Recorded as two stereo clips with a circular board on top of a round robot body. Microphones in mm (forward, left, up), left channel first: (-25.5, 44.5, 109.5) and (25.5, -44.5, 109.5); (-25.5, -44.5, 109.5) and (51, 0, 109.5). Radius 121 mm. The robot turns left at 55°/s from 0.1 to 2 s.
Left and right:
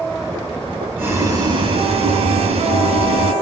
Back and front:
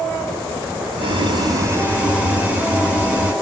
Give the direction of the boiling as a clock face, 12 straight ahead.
12 o'clock.